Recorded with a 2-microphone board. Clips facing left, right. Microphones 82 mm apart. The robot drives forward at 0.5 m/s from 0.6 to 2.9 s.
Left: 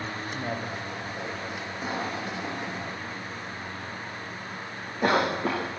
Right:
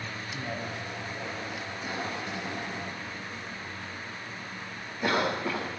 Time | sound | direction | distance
0.3 | a man speaking | 30° left (ahead or behind) | 7.5 m
1.8 | a cough | 40° left (ahead or behind) | 7.5 m